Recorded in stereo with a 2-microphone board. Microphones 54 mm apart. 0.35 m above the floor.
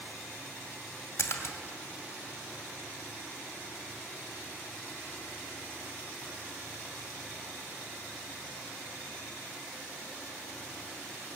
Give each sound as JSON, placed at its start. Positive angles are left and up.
{"t": 1.2, "sound": "a splash", "side_deg": 55, "distance_m": 2.5}